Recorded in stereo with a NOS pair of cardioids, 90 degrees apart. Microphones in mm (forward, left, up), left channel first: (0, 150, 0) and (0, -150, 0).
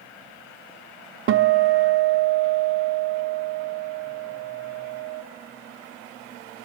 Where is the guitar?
45° right, 0.8 m.